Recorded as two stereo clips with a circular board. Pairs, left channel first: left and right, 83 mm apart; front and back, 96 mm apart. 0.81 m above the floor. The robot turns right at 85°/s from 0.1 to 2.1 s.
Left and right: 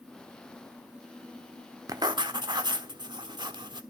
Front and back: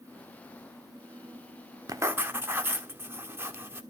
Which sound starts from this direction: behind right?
Writing, at 1.9 s.